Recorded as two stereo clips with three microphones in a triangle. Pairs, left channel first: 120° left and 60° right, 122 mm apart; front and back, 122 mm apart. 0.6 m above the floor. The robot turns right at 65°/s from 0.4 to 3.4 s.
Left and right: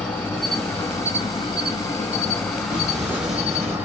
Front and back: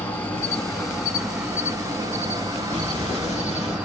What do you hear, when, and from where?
0.0 s an insect: 50° left, 1.4 m; by 3.9 s 115° right, 1.4 m
2.7 s an explosion: 10° right, 2.5 m; by 3.8 s 35° left, 2.5 m